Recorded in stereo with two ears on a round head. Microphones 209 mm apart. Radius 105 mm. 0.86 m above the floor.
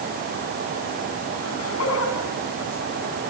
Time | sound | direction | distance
1.4 | laughter | 70° left (ahead or behind) | 6.5 m